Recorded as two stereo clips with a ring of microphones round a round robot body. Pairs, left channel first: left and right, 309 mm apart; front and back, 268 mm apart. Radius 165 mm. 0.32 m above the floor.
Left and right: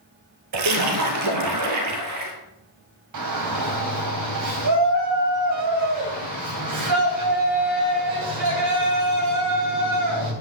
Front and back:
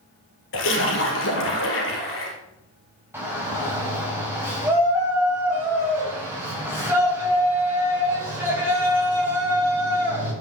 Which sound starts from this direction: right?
A shout, at 3.1 s.